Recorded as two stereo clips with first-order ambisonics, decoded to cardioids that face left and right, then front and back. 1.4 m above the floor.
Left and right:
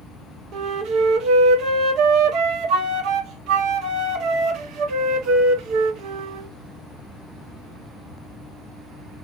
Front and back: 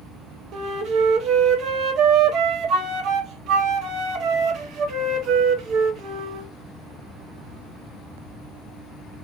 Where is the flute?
130° right, 0.9 m.